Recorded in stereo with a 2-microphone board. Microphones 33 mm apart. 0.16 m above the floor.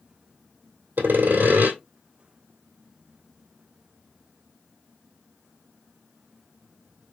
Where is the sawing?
80° right, 1.8 m.